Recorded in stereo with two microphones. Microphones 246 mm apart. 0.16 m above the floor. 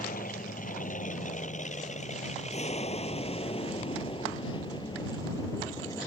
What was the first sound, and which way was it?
An aircraft, 35° left (ahead or behind).